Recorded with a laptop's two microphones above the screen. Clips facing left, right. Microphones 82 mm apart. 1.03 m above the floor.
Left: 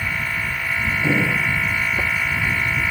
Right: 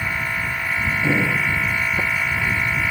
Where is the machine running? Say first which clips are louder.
Even; 15° right (ahead or behind).